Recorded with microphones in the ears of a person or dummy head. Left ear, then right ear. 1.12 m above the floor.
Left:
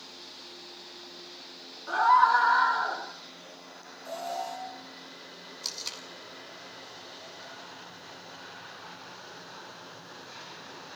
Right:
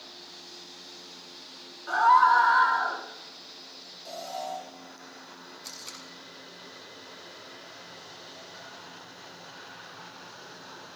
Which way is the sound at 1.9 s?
Centre (ahead or behind).